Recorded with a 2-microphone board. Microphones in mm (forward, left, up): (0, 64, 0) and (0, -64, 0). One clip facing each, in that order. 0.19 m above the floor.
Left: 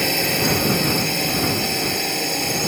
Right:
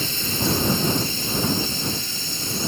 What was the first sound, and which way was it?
A drone, 60° left (ahead or behind).